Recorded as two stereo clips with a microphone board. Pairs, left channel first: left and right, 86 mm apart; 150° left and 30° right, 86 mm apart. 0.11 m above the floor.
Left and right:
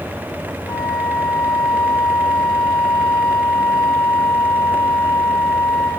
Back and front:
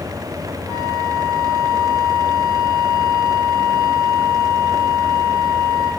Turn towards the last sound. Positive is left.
turn(degrees=110)